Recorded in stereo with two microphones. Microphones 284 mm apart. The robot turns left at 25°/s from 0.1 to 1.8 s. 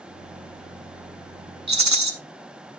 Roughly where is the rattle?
Right.